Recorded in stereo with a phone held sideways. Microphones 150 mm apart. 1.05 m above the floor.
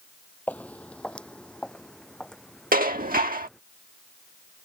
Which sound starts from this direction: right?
Dishes clattering, at 2.7 s.